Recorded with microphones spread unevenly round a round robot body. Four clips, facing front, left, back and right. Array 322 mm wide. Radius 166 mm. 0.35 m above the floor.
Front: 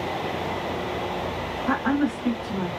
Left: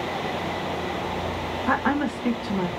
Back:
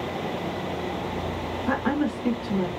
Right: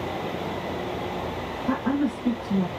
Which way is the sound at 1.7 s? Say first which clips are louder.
Left 1 dB, front 2 dB; 135° left.